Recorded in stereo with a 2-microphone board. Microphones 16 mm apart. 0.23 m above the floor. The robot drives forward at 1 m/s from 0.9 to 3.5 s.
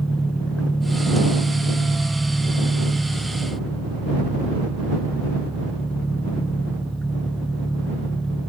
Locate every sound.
0.0 s an engine running: 75° left (ahead or behind), 4.5 m; by 8.5 s 50° left (ahead or behind), 5.5 m